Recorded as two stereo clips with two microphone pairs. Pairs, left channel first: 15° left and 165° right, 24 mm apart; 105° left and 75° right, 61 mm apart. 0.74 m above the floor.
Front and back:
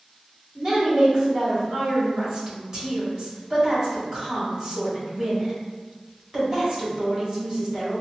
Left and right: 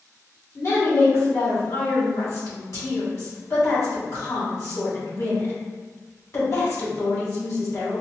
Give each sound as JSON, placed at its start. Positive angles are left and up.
{"t": 0.6, "sound": "a woman speaking", "azimuth_deg": 125, "distance_m": 1.7}